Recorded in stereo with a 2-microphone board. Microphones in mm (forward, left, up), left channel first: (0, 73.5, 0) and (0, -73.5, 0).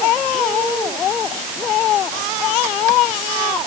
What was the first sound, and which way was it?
Only background noise.